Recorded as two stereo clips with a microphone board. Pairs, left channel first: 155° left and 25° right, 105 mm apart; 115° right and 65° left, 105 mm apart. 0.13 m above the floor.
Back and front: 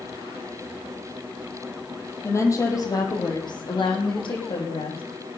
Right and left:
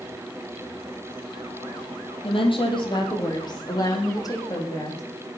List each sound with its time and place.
2.2 s a woman speaking: 140° right, 4 m; by 5.0 s 170° right, 7 m